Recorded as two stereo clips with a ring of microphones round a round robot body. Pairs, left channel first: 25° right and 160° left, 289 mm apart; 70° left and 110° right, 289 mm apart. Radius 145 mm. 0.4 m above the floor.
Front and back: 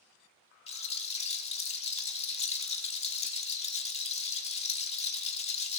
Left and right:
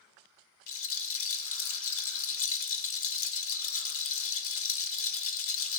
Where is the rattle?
40° left, 1.0 m.